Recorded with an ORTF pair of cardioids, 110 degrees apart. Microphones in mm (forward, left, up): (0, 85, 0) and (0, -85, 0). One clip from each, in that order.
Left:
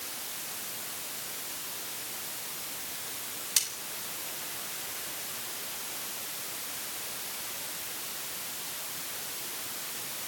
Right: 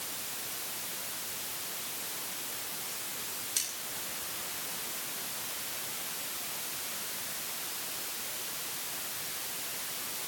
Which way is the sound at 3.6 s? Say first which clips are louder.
Left 5 dB; 40° left.